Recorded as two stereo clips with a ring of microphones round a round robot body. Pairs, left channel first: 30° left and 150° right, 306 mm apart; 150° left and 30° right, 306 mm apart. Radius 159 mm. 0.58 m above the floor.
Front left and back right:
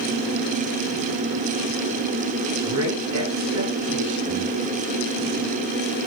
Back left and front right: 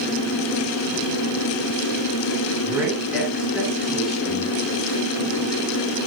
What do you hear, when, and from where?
2.6 s a woman speaking: 115° right, 8.5 m; by 4.5 s 120° right, 8.5 m